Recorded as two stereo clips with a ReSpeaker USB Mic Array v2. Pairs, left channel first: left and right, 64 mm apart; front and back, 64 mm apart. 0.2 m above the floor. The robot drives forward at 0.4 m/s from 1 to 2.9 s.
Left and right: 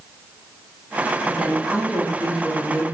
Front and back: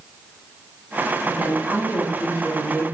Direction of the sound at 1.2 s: 165° right.